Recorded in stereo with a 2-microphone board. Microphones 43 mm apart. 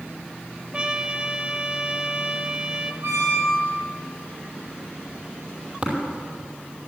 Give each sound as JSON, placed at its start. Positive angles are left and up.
{"t": 0.7, "sound": "a trumpet", "side_deg": -25, "distance_m": 0.7}
{"t": 3.0, "sound": "a squeak", "side_deg": -50, "distance_m": 5.0}
{"t": 5.8, "sound": "tapping", "side_deg": -30, "distance_m": 4.5}